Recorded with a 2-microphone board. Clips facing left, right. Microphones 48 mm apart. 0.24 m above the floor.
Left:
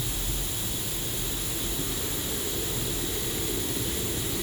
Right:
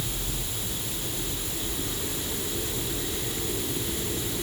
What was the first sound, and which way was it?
Only background noise.